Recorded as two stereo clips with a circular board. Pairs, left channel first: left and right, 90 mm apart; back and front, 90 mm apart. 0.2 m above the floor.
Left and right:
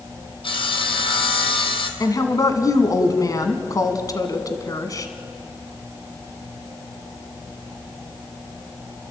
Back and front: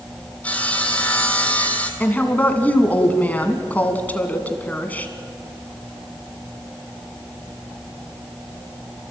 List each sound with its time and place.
0.4 s sawing: 105° left, 1.6 m
2.0 s a woman speaking: 115° left, 1.8 m